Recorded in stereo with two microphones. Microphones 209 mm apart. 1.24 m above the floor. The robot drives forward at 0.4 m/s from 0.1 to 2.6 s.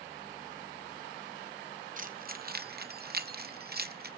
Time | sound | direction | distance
2.0 | keys jangling | 40° right (ahead or behind) | 0.7 m